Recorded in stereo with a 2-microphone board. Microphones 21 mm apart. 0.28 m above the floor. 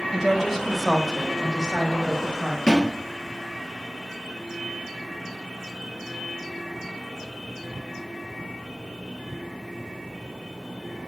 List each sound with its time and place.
0.1 s a woman speaking: 35° right (ahead or behind), 1.5 m; by 2.6 s 55° left (ahead or behind), 2 m
2.7 s a thud: 55° left (ahead or behind), 3 m